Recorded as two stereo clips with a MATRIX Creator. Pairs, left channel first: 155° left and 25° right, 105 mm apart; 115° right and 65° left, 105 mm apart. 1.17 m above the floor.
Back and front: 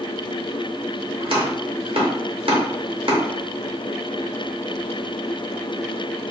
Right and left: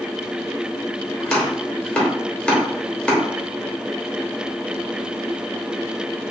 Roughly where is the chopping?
Ahead right.